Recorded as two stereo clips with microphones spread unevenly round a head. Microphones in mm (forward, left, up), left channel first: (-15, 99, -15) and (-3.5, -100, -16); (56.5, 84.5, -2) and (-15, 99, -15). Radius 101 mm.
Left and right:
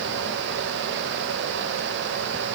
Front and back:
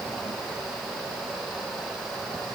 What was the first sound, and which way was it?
Only background noise.